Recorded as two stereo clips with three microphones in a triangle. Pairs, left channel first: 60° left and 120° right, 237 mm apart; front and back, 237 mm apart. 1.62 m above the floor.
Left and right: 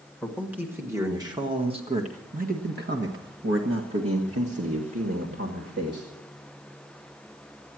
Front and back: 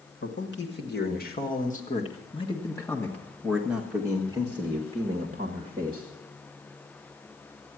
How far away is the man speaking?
About 2 m.